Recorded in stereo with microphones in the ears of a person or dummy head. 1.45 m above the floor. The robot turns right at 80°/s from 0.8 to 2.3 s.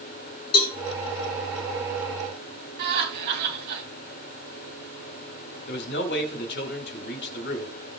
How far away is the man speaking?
About 2.5 m.